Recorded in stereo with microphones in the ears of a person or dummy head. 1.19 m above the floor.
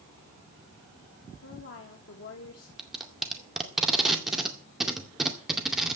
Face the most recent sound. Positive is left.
turn(degrees=0)  # may be behind; listen again after turning